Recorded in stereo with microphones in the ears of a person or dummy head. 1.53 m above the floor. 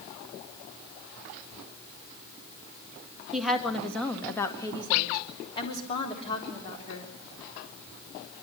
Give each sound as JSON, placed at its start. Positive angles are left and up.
{"t": 3.3, "sound": "a woman speaking", "side_deg": -10, "distance_m": 1.8}